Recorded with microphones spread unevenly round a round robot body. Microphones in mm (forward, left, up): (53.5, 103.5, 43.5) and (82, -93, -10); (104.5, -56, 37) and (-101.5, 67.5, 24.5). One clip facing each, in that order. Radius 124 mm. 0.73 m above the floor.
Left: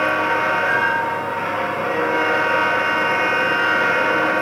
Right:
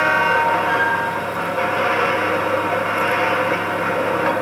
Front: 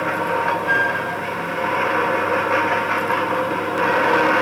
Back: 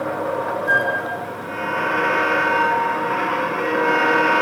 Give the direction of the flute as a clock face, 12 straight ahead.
9 o'clock.